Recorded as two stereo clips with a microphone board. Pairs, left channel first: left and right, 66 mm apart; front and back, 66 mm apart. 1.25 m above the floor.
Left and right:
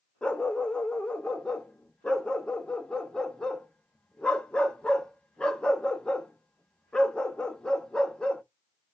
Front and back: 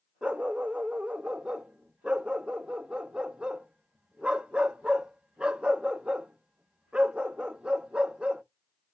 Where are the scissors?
I don't hear scissors.